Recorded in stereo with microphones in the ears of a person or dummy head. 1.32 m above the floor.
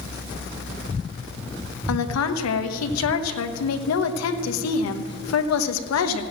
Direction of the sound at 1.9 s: 80° left.